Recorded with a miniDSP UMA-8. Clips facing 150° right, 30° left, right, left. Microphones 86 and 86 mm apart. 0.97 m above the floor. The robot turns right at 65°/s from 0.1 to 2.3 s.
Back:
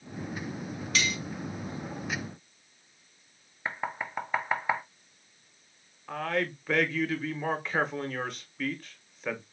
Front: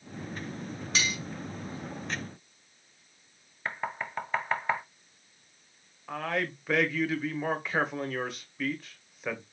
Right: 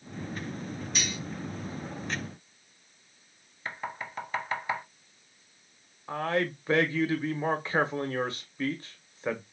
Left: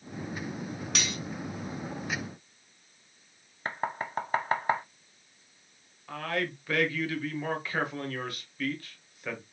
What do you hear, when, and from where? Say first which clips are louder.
0.9 s cutlery clinking: back 1 dB, left 1 dB; 90° left, 1.1 m; by 1.2 s 105° left, 1.1 m
3.6 s knocking: even, left 4 dB; 130° left, 0.6 m
6.1 s a man speaking: back 1 dB, right 4 dB; 60° right, 0.8 m